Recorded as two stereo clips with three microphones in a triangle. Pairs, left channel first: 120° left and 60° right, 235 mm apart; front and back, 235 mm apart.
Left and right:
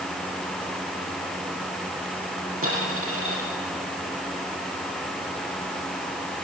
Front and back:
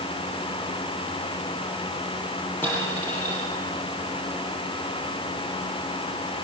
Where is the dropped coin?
80° right, 7 m.